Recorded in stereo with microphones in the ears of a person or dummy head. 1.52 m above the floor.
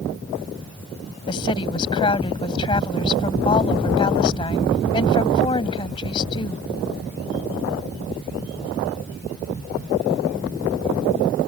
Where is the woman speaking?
25° left (ahead or behind).